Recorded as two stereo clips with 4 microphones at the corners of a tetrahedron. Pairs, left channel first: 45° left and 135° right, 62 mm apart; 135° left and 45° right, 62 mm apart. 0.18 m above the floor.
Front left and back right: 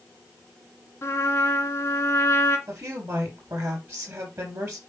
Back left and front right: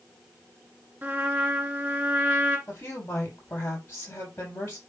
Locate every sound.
1.0 s a trumpet: 10° left, 2 m
2.7 s a woman speaking: 175° right, 5.5 m